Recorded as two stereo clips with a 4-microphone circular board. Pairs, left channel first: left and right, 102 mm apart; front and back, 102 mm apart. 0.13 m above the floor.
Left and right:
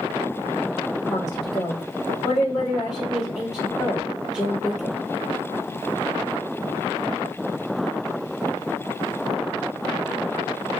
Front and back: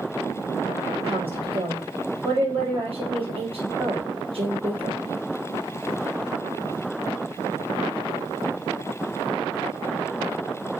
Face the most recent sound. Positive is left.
turn(degrees=-175)